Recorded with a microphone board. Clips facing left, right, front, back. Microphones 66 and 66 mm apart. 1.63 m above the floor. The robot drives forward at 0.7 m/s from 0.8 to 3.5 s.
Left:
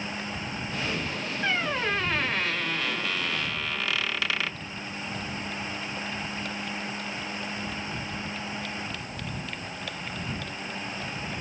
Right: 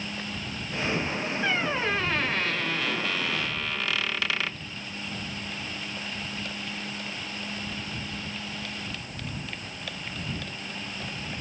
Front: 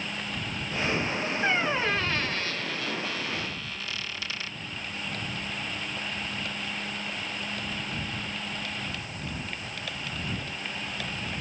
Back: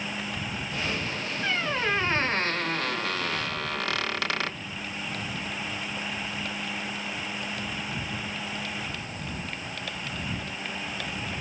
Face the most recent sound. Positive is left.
turn(degrees=180)